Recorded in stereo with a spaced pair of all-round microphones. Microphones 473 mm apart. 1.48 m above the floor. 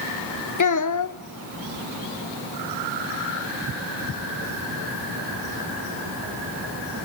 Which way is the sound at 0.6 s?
40° left (ahead or behind).